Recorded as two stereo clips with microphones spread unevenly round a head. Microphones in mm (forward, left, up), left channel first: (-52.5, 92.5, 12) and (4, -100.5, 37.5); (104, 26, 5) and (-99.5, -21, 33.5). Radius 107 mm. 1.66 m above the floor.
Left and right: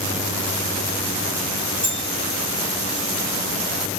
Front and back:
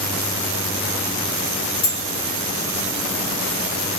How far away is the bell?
About 2 m.